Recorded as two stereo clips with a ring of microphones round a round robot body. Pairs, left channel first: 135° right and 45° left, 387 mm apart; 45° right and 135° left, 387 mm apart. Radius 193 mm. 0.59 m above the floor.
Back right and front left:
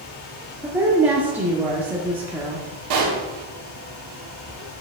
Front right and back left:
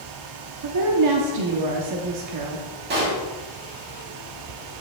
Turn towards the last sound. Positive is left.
turn(degrees=75)